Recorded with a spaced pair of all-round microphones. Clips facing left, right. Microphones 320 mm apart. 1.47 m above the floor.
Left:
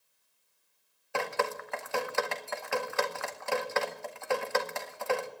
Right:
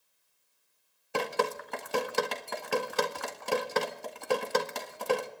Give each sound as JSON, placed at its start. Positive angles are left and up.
{"t": 1.1, "sound": "dripping", "side_deg": -45, "distance_m": 1.6}